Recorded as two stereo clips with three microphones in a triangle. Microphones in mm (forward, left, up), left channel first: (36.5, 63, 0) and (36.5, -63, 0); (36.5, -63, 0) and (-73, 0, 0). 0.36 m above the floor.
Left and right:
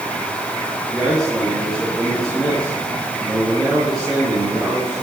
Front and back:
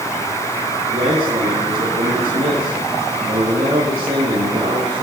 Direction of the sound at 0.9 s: Straight behind.